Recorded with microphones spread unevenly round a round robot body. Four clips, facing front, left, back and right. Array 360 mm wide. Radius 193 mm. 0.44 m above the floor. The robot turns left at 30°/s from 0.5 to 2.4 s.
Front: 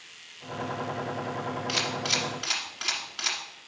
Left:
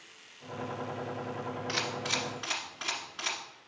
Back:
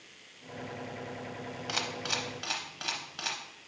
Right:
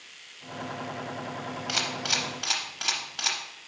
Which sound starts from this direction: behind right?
A camera shutter, at 1.7 s.